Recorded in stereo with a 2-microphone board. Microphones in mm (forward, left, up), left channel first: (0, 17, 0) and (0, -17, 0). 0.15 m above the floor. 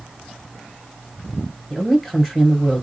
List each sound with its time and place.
1.7 s a woman speaking: 5° left (ahead or behind), 2 m